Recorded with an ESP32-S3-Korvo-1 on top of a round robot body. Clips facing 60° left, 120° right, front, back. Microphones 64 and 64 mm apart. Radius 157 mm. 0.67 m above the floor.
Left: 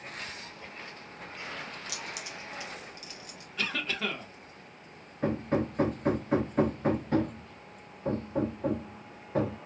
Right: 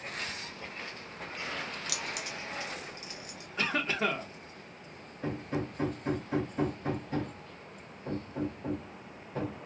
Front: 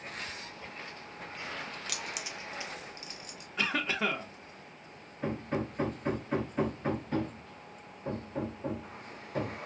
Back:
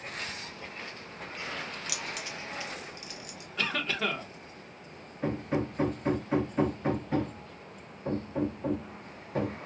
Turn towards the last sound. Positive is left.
turn(degrees=95)